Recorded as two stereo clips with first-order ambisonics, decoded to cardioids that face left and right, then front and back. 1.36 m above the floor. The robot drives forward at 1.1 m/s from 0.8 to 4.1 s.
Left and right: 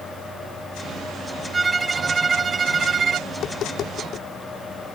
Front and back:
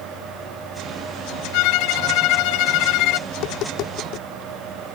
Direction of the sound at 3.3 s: 35° left.